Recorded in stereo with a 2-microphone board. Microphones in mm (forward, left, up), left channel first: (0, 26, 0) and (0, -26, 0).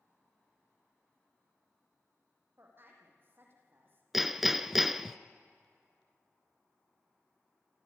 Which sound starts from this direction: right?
A woman speaking, at 2.6 s.